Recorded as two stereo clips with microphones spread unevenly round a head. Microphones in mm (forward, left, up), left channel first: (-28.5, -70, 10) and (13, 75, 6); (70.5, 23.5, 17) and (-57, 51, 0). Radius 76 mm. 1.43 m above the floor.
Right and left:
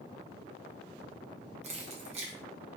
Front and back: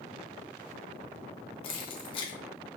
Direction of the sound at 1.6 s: 25° left.